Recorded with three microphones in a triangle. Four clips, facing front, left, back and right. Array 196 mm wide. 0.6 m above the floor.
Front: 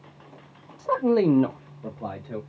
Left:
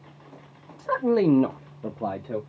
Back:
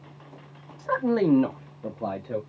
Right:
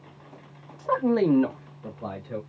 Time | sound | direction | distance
0.8 | a man speaking | 50° right | 0.7 m